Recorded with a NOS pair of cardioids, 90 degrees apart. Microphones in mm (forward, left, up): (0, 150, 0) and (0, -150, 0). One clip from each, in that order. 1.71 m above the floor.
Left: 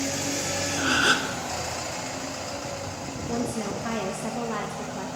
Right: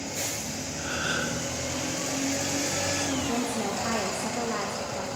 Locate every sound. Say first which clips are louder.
0.8 s a gasp: left 7 dB; 60° left, 0.7 m
3.3 s a woman speaking: right 1 dB; 5° left, 0.8 m